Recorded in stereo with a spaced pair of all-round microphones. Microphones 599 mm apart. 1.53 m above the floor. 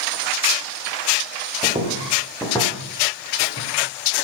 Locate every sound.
1.6 s footsteps: 10° right (ahead or behind), 4.5 m; by 3.7 s 20° left (ahead or behind), 4.5 m